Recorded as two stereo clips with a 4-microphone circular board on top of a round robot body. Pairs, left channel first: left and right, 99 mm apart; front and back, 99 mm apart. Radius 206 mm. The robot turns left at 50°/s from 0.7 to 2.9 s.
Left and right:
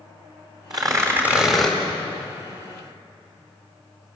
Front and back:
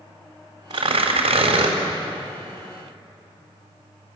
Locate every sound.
0.7 s tearing paper: 135° right, 4 m; by 1.8 s 170° left, 4 m